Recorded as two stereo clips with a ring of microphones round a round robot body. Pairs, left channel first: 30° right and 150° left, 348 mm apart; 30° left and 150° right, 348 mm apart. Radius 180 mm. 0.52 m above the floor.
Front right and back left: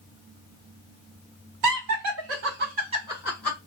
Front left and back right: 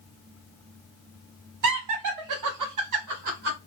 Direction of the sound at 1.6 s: Straight behind.